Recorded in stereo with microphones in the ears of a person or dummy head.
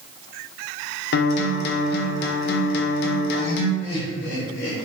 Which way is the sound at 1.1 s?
55° left (ahead or behind).